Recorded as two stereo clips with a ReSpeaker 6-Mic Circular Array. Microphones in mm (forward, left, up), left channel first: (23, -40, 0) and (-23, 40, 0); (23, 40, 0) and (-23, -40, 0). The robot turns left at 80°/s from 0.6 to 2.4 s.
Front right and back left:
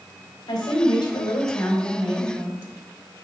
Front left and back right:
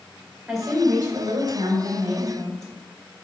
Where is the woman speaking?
30° right, 2.5 m; by 2.7 s 175° right, 2.5 m.